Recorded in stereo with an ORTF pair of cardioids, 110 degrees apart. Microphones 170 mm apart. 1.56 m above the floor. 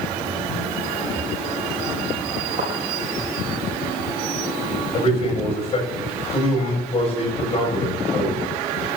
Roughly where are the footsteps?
Ahead right.